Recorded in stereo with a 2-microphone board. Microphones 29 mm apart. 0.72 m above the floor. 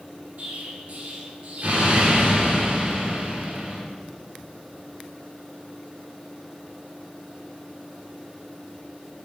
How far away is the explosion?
About 3 m.